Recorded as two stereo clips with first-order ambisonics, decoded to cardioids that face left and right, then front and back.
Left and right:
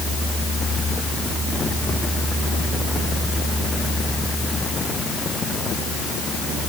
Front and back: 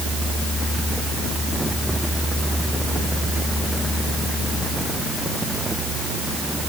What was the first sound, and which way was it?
Only background noise.